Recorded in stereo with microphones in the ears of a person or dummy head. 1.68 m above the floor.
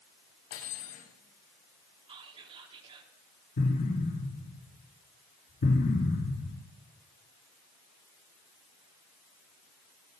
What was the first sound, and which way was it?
Cutlery clinking, 85° left.